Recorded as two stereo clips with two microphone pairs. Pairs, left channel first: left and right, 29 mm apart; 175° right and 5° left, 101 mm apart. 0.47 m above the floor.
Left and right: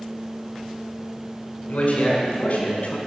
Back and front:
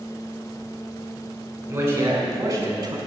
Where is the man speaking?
70° left, 4 m; by 3.0 s 55° left, 3 m.